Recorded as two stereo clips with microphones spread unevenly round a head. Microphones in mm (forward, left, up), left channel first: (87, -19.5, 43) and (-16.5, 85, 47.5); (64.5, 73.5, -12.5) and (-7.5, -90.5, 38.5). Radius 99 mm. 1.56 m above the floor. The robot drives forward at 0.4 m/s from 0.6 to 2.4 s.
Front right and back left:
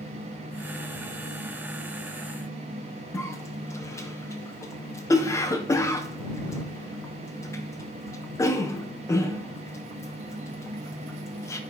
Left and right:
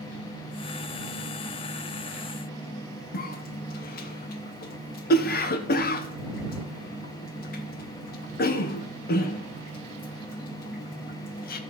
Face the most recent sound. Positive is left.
turn(degrees=25)